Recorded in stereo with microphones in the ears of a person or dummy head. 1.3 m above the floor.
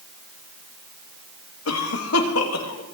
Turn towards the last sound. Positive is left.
turn(degrees=85)